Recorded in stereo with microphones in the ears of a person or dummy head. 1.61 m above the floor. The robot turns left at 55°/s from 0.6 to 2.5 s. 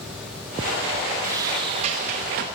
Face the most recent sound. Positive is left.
turn(degrees=-85)